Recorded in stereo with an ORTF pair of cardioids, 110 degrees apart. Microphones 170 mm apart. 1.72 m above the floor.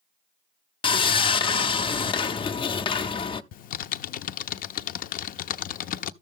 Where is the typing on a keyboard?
55° left, 0.5 m.